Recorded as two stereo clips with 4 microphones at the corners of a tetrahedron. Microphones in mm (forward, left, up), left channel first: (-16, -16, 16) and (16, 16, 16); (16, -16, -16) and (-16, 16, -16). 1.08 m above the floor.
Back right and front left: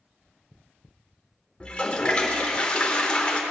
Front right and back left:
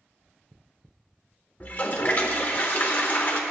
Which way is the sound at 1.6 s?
75° right.